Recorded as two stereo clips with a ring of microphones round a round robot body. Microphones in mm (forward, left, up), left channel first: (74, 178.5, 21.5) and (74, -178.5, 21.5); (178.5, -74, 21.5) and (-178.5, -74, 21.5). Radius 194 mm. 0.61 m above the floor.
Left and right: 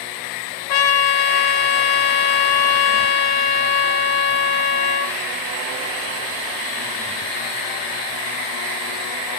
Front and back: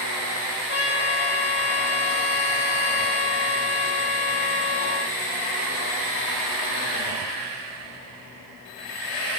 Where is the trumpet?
65° left, 0.5 m.